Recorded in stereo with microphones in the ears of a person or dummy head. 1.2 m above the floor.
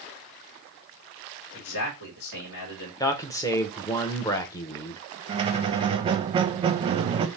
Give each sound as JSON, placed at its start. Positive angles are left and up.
{"t": 1.5, "sound": "a man speaking", "side_deg": 65, "distance_m": 1.8}
{"t": 3.0, "sound": "a man speaking", "side_deg": 20, "distance_m": 0.7}
{"t": 5.3, "sound": "a squeak", "side_deg": -30, "distance_m": 0.6}